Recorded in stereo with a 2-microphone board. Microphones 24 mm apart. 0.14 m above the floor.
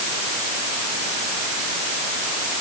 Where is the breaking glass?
I don't hear breaking glass.